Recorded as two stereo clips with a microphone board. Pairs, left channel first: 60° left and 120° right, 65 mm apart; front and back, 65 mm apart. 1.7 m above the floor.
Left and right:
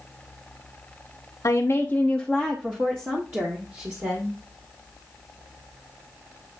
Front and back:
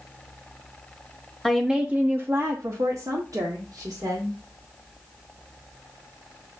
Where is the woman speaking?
85° left, 0.9 m; by 4.4 s 165° right, 2.5 m.